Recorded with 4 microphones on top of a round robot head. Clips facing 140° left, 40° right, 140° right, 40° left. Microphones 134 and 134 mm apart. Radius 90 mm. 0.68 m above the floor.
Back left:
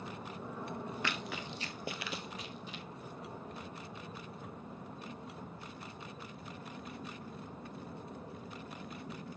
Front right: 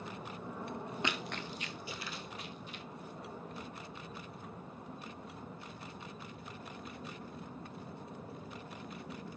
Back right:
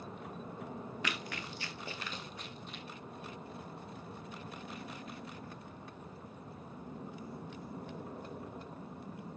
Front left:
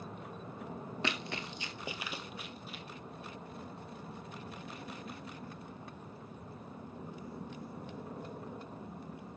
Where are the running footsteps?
5° left, 0.7 m; by 2.8 s 125° left, 1.4 m.